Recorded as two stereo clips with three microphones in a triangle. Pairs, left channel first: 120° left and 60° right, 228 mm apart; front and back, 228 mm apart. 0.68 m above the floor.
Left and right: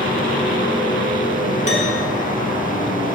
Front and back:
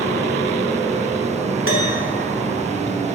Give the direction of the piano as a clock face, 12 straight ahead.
6 o'clock.